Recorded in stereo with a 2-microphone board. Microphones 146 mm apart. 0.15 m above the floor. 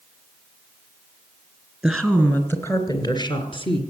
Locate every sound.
1.8 s a woman speaking: centre (ahead or behind), 2.5 m; by 3.8 s 40° left (ahead or behind), 2.5 m